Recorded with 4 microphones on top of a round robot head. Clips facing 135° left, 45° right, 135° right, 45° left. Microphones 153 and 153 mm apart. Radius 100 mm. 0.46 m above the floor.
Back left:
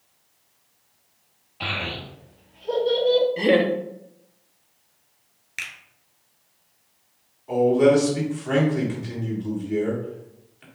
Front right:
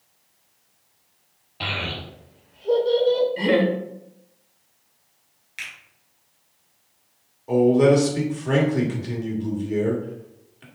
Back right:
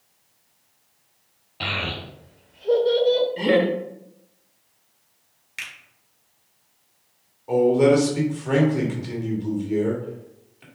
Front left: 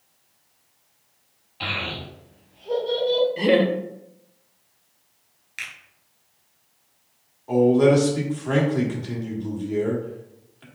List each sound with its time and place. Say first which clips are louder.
1.6 s a child speaking: even, back right 1 dB; 95° right, 1.4 m; by 3.3 s 140° right, 1.7 m
3.4 s laughter: back left 1 dB, front left 1 dB; 110° left, 0.7 m
5.6 s a finger snap: back left 1 dB, even; 160° left, 1.5 m
7.5 s a man speaking: front right 1 dB, even; 60° right, 1.7 m